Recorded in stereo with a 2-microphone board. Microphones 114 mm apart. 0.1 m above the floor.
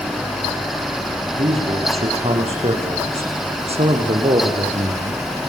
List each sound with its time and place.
1.4 s a man speaking: 65° right (ahead or behind), 7.5 m; by 5.2 s 60° right (ahead or behind), 4.5 m